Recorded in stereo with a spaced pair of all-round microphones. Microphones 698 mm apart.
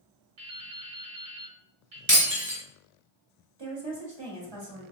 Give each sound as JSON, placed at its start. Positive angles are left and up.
{"t": 0.4, "sound": "dripping", "side_deg": -55, "distance_m": 0.8}
{"t": 2.1, "sound": "breaking glass", "side_deg": -30, "distance_m": 2.0}
{"t": 3.6, "sound": "a woman speaking", "side_deg": -40, "distance_m": 1.3}